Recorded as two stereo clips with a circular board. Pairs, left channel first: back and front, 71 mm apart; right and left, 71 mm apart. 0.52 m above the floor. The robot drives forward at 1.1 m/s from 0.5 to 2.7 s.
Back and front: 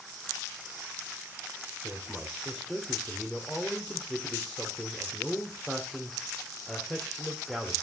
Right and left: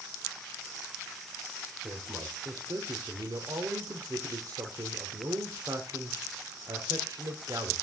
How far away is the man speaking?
About 1.4 m.